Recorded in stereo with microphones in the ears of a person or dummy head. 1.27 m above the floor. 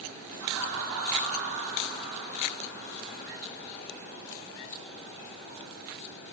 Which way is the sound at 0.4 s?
80° right.